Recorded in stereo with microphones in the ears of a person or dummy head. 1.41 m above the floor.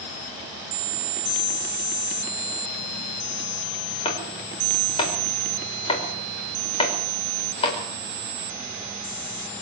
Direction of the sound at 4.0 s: 35° left (ahead or behind).